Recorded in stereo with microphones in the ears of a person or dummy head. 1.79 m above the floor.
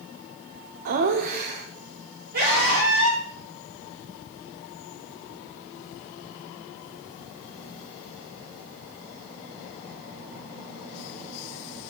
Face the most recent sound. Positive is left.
turn(degrees=-50)  # may be behind; listen again after turning